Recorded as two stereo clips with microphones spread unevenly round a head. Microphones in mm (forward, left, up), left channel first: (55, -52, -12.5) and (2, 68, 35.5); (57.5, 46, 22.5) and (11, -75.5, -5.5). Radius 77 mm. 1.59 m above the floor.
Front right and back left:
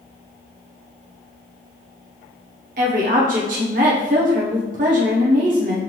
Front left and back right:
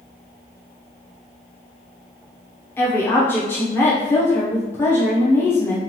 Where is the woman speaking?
145° left, 0.9 m.